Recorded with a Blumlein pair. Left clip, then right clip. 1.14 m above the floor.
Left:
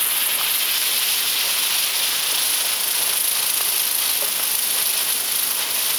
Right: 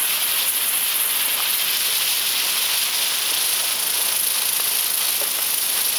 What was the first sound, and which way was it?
Only background noise.